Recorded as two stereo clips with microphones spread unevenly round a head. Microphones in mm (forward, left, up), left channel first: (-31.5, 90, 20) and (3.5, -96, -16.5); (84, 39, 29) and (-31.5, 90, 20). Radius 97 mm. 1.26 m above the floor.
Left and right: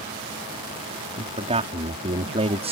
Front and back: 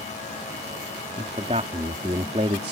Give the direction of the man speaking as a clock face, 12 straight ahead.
5 o'clock.